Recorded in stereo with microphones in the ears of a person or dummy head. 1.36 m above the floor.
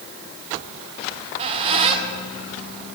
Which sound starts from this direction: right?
A squeak, at 1.1 s.